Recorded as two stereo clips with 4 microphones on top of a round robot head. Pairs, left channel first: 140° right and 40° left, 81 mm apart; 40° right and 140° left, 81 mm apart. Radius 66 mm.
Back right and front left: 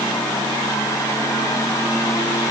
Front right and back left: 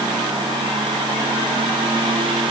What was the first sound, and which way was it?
Only background noise.